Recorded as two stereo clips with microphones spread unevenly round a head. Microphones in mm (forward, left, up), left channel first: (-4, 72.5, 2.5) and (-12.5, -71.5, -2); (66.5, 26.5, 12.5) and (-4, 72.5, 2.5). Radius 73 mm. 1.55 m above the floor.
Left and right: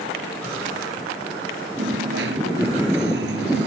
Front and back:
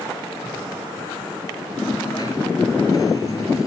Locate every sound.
1.8 s a dropped coin: 100° right